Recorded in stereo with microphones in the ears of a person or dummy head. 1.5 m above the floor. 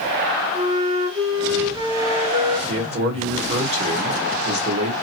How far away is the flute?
About 0.7 m.